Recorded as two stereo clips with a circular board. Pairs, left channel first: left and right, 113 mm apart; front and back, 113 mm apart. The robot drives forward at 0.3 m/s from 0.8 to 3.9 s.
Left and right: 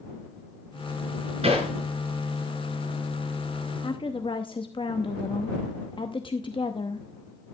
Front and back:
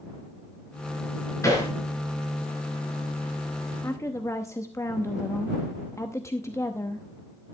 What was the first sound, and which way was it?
Hammering, 60° right.